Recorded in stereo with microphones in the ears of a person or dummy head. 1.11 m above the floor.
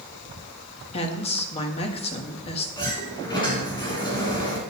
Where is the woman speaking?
35° left (ahead or behind), 1.7 m.